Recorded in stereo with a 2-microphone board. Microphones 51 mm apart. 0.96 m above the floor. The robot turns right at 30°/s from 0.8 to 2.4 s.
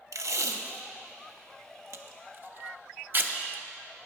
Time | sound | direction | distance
0.1 | tape being pulled | 80° right | 0.5 m